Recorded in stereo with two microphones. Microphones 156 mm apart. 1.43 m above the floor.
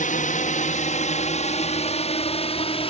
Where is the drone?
55° left (ahead or behind); by 2.9 s 35° left (ahead or behind).